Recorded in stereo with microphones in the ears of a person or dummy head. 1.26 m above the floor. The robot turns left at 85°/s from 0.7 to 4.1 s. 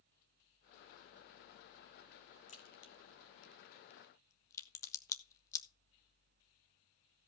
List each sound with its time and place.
2.5 s a crack: 30° left (ahead or behind), 1.4 m; by 5.7 s 15° left (ahead or behind), 1.4 m